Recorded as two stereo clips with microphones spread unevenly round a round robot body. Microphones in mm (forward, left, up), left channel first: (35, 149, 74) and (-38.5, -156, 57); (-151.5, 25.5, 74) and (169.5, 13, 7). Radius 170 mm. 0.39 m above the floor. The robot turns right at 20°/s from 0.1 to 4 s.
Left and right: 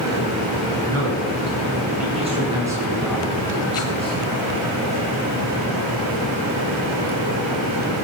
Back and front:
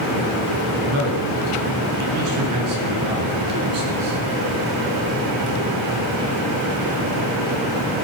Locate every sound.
0.8 s a man speaking: 60° right, 5 m; by 4.1 s 5° left, 5 m